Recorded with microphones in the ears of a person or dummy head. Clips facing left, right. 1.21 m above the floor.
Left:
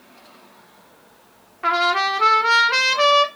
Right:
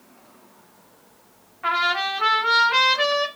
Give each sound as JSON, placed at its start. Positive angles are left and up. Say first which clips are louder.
{"t": 1.6, "sound": "a trumpet", "louder": "left 5 dB", "side_deg": 50, "distance_m": 0.6}